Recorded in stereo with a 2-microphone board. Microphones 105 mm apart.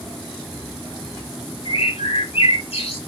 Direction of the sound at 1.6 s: 75° left (ahead or behind).